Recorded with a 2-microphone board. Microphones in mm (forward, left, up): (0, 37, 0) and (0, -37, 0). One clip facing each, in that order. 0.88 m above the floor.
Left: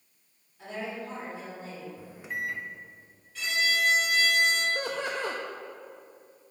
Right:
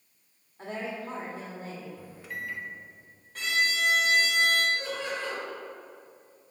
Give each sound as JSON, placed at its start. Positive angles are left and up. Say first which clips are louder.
{"t": 0.6, "sound": "a woman speaking", "louder": "right 1 dB", "side_deg": -45, "distance_m": 2.0}
{"t": 2.0, "sound": "a microwave", "louder": "left 3 dB", "side_deg": 20, "distance_m": 0.7}
{"t": 3.4, "sound": "a violin", "louder": "even", "side_deg": -45, "distance_m": 1.5}
{"t": 4.8, "sound": "laughter", "louder": "left 2 dB", "side_deg": 60, "distance_m": 0.6}